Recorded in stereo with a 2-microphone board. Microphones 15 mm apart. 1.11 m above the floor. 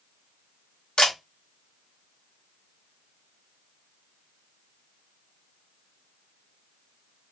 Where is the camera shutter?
70° left (ahead or behind), 2 m.